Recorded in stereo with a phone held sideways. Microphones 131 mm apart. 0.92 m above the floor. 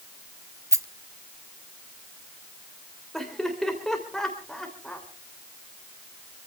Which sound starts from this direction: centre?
Laughter, at 3.1 s.